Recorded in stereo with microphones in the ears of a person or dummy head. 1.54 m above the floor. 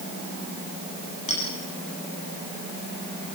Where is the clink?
25° left (ahead or behind), 9.5 m.